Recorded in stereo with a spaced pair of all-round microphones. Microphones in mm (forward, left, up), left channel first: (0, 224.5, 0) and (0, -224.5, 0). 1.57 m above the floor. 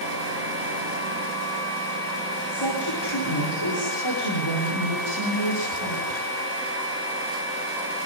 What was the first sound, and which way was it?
A woman speaking, 60° left (ahead or behind).